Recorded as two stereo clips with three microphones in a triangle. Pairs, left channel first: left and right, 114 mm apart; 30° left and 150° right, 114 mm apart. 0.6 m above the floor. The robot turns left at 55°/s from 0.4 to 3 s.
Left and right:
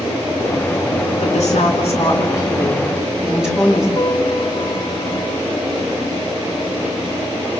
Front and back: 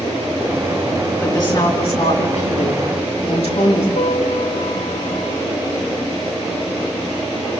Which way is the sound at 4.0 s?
40° left.